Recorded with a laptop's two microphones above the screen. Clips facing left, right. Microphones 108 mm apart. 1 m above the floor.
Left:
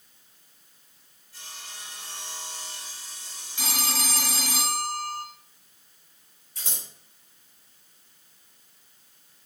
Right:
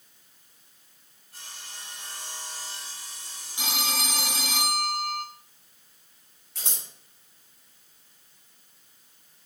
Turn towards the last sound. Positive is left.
turn(degrees=-80)